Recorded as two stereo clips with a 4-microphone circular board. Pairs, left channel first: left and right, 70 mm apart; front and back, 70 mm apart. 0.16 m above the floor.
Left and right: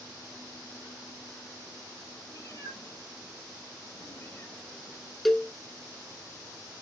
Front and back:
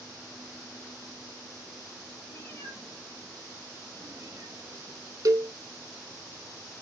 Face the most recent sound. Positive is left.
turn(degrees=175)